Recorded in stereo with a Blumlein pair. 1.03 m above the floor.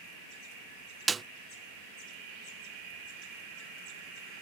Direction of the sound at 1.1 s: 15° right.